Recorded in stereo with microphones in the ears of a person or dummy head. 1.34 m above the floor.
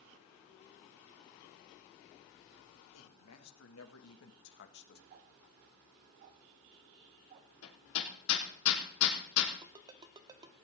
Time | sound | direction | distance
2.9 | a man speaking | 80° left | 3 m
5.1 | ticking | 35° right (ahead or behind) | 1.1 m
7.6 | hammering | 80° left | 3 m
9.6 | a ringtone | 20° right (ahead or behind) | 1.5 m